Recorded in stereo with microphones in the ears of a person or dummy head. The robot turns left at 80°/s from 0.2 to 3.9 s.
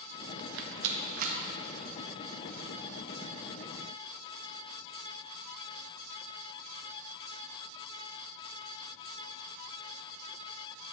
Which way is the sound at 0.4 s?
60° right (ahead or behind).